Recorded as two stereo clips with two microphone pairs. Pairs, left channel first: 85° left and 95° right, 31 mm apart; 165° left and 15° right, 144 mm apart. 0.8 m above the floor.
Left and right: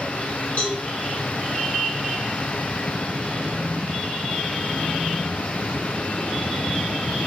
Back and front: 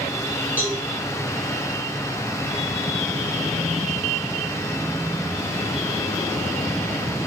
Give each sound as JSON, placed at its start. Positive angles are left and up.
{"t": 0.6, "sound": "a cowbell", "azimuth_deg": 60, "distance_m": 1.3}